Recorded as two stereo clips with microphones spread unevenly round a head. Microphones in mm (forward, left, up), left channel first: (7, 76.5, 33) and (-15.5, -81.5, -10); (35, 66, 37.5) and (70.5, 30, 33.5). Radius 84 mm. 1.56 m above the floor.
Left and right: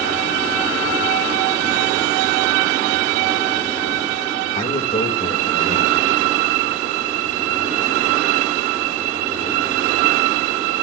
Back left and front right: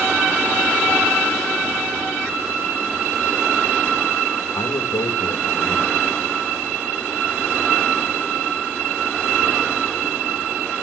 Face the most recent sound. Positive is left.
turn(degrees=135)